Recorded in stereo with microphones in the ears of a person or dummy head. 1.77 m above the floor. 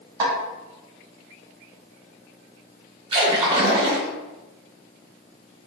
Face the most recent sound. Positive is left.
turn(degrees=-25)  # may be behind; listen again after turning